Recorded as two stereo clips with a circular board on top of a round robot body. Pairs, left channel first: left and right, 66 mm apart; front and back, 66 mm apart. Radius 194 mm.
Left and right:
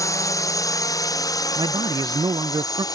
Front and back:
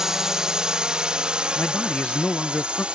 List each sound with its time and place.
0.0 s a drone: 100° left; by 3.0 s 105° left
1.6 s a man speaking: 75° right